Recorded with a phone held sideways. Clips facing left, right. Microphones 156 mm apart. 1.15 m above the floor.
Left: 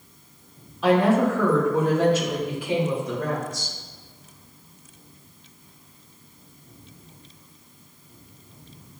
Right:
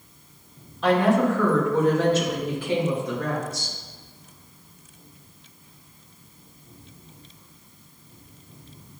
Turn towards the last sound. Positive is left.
turn(degrees=15)  # may be behind; listen again after turning